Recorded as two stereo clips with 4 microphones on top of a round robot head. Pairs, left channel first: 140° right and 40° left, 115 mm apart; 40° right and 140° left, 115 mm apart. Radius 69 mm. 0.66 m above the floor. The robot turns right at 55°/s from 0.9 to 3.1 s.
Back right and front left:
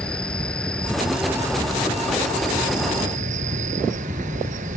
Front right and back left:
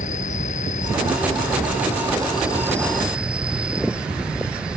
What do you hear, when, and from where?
0.0 s an insect: 60° right; by 4.8 s 60° left